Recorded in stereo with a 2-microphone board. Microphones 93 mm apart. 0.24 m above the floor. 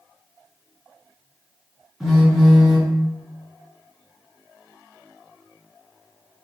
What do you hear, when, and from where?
2.0 s a phone buzzing: centre (ahead or behind), 2.0 m